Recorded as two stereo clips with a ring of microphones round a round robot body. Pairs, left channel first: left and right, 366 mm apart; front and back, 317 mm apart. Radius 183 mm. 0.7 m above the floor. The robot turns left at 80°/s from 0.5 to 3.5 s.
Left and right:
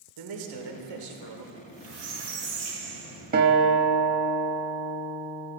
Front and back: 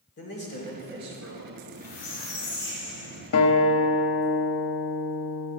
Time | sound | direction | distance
0.2 | a man speaking | 65° right | 2.5 m
1.6 | a squeak | 30° right | 5.5 m
3.3 | a guitar | 30° right | 1.2 m